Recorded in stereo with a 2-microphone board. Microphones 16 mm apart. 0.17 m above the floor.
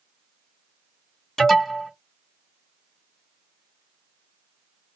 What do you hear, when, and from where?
1.4 s an alarm: 25° left (ahead or behind), 2.5 m